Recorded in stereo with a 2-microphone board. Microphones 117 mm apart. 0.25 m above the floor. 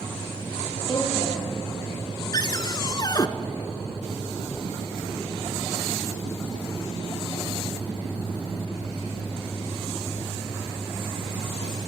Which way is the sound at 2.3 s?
40° left (ahead or behind).